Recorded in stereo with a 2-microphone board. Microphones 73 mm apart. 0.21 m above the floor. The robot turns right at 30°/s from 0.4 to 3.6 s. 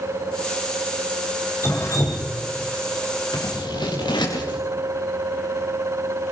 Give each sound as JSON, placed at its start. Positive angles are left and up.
{"t": 1.6, "sound": "dripping", "side_deg": 35, "distance_m": 3.5}
{"t": 3.3, "sound": "scissors", "side_deg": 85, "distance_m": 5.0}